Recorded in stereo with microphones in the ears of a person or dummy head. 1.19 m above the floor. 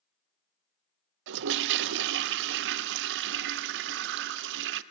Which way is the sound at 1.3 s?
65° right (ahead or behind).